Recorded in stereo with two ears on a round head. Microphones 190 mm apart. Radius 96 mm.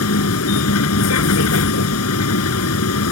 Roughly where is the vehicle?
Left.